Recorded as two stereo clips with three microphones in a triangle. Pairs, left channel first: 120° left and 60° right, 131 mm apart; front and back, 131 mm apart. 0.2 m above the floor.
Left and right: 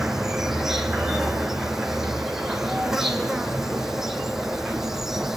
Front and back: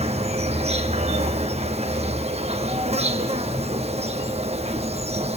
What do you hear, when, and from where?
0.0 s an insect: 145° right, 1.1 m